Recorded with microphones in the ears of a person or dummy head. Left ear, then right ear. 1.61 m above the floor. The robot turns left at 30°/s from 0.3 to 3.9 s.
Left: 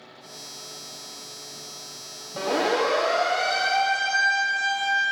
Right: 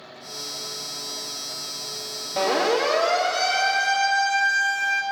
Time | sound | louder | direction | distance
2.4 | a siren | right 2 dB | 20° right (ahead or behind) | 3.5 m